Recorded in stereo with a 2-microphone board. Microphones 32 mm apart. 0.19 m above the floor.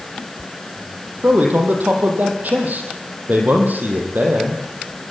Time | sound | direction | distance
1.2 | a man speaking | 65° right (ahead or behind) | 5 m